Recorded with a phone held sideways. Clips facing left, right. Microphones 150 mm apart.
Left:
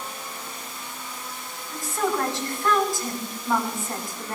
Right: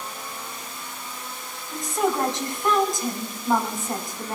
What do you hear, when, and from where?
1.7 s a woman speaking: 20° right (ahead or behind), 5 m